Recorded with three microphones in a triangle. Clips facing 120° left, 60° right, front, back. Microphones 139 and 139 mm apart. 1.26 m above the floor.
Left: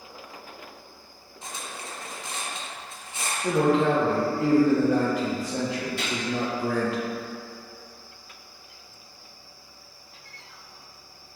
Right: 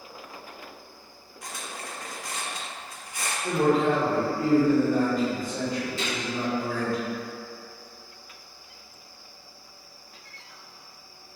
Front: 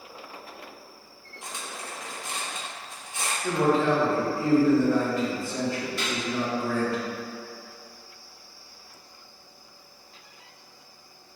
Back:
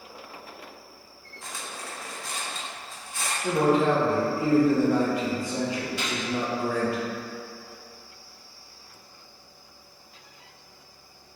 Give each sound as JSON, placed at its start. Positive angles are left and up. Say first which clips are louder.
{"t": 1.4, "sound": "cutlery clinking", "louder": "even, even", "azimuth_deg": 65, "distance_m": 0.8}
{"t": 3.4, "sound": "a man speaking", "louder": "left 1 dB, back 1 dB", "azimuth_deg": 110, "distance_m": 0.8}
{"t": 6.0, "sound": "a gunshot", "louder": "even, even", "azimuth_deg": 105, "distance_m": 1.6}